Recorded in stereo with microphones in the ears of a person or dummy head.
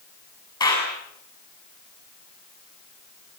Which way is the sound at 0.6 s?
25° left (ahead or behind).